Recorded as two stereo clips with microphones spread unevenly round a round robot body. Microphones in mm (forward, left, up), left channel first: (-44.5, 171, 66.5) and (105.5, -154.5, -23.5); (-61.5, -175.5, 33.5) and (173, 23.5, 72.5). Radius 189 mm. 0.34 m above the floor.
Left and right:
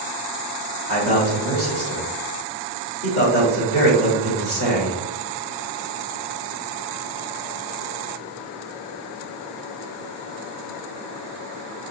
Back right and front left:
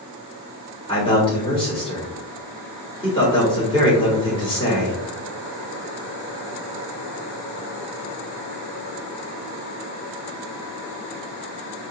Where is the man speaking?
Straight behind, 1.5 m.